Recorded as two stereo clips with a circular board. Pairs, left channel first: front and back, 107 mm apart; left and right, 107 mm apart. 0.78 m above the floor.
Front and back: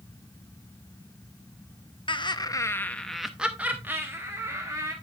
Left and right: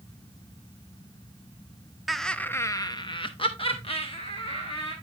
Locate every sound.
2.1 s laughter: straight ahead, 0.7 m; by 4.9 s 120° left, 1.6 m